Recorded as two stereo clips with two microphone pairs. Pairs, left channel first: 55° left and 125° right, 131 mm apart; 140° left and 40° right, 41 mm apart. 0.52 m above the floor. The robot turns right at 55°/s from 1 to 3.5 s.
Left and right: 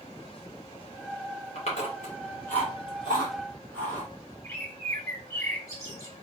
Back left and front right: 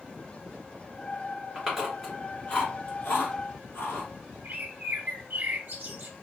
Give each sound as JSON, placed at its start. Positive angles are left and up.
{"t": 1.6, "sound": "chewing", "azimuth_deg": 30, "distance_m": 1.4}
{"t": 4.4, "sound": "a bird", "azimuth_deg": -5, "distance_m": 0.7}